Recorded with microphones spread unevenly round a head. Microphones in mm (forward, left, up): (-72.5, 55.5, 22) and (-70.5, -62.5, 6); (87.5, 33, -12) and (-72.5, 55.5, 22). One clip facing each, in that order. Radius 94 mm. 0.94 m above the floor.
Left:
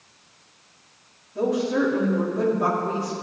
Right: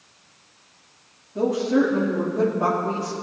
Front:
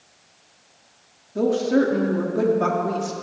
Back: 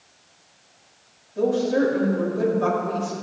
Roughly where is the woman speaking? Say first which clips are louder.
Right 2 dB, front 1 dB; ahead.